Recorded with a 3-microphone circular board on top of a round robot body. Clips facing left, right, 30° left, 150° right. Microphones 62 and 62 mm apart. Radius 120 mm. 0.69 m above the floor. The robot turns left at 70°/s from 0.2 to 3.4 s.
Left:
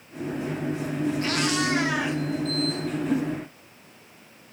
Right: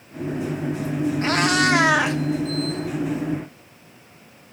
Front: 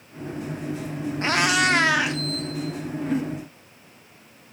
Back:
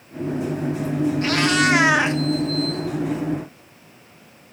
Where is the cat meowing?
30° right, 0.9 m; by 2.2 s 95° right, 0.9 m.